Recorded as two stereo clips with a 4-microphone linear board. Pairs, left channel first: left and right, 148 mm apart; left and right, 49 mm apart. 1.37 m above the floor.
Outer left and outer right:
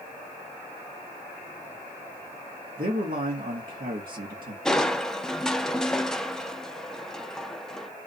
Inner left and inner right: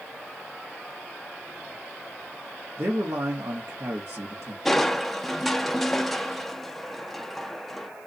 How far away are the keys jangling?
I don't hear keys jangling.